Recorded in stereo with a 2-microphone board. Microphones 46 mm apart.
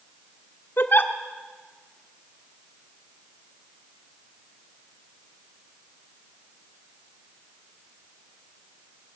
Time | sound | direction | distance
0.8 | a giggle | 50° left (ahead or behind) | 1.5 m